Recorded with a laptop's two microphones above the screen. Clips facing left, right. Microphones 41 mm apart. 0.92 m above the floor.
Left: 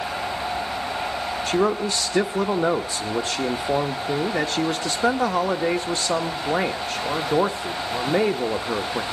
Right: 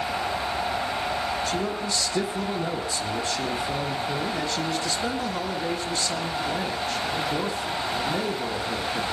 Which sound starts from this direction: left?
A man speaking, at 1.5 s.